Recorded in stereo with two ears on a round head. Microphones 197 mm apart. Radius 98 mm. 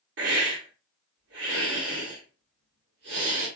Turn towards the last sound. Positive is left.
turn(degrees=-55)  # may be behind; listen again after turning